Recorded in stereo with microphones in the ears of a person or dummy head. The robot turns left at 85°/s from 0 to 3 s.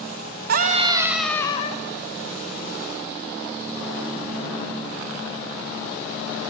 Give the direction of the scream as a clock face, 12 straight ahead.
4 o'clock.